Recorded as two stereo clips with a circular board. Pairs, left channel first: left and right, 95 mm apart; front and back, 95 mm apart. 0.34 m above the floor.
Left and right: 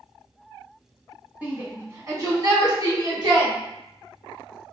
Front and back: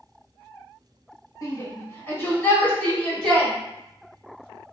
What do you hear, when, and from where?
1.4 s a shout: 25° right, 1.1 m; by 3.5 s 80° right, 1.6 m